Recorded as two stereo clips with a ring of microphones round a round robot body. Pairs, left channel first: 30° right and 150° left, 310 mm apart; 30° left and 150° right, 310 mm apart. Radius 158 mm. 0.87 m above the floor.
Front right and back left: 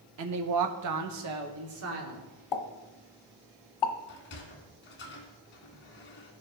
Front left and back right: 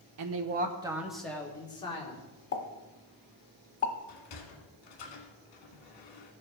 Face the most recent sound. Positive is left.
turn(degrees=25)